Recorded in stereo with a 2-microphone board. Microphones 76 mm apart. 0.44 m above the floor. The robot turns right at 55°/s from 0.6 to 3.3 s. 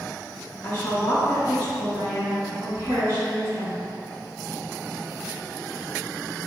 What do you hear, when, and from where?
0.6 s a woman speaking: 90° left, 2.0 m; by 3.8 s 125° right, 2.0 m